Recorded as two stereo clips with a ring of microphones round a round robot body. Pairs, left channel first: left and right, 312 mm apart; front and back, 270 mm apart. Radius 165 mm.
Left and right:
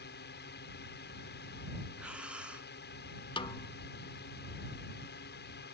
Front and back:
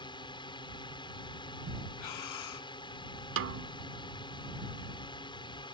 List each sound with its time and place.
0.0 s a drone: 60° left
2.0 s breathing: 5° right
3.4 s a snare drum: 160° left